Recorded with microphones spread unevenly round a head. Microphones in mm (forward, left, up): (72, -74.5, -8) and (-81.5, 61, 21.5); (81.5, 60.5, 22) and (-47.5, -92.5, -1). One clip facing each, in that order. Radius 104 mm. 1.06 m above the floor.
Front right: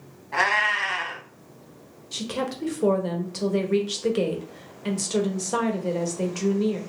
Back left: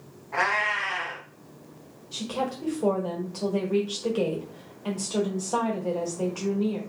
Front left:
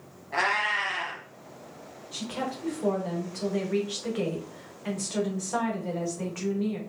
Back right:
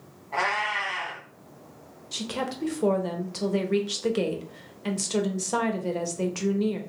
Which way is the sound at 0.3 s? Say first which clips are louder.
Front right 1 dB, back right 1 dB; 10° right.